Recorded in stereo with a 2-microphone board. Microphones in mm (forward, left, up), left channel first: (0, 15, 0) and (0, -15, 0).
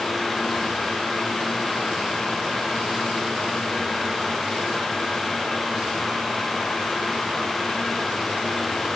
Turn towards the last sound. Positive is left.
No sound to turn to.